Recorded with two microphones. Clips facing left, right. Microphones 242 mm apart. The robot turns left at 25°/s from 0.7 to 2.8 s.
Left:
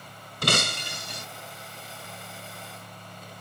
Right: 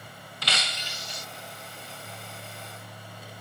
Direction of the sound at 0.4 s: 55° left (ahead or behind).